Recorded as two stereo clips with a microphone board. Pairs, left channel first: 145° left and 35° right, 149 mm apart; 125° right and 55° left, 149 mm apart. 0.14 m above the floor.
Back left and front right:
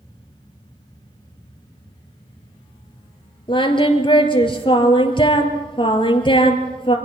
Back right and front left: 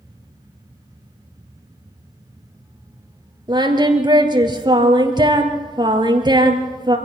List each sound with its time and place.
3.5 s singing: 105° left, 2.5 m